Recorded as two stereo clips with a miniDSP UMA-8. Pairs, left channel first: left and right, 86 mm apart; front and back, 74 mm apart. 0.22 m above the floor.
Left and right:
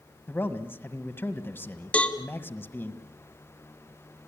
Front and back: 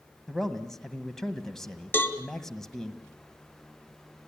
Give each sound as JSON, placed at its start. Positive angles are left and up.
{"t": 0.3, "sound": "a man speaking", "azimuth_deg": 75, "distance_m": 1.5}
{"t": 1.9, "sound": "a cowbell", "azimuth_deg": 30, "distance_m": 1.6}